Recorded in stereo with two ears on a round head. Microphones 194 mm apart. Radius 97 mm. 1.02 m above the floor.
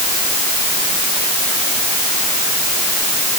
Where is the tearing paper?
No tearing paper in this recording.